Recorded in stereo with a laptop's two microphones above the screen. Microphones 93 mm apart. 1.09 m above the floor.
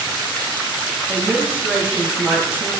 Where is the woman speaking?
15° right (ahead or behind), 0.8 m.